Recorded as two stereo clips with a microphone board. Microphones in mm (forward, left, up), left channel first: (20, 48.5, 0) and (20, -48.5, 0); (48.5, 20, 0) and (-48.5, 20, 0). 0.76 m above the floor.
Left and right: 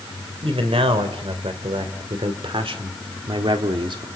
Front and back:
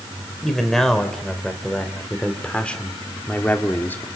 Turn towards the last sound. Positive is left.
turn(degrees=-65)